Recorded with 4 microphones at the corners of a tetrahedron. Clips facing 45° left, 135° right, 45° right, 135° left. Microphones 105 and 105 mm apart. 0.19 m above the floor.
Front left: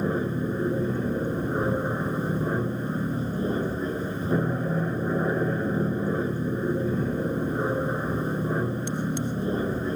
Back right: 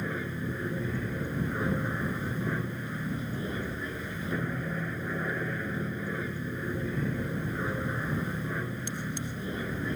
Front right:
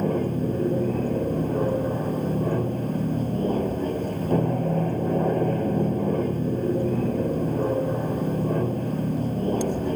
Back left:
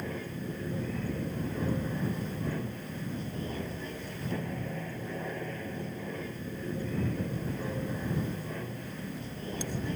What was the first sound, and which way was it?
An aircraft, 5° right.